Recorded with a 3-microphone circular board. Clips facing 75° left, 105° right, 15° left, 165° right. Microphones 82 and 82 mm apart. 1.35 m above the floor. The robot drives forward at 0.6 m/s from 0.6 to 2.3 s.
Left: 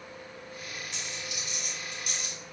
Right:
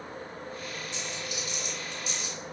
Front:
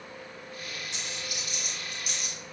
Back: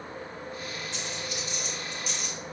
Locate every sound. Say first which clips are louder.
0.9 s a dropped coin: right 3 dB, back 4 dB; 85° left, 2.5 m; by 2.4 s 105° left, 2.5 m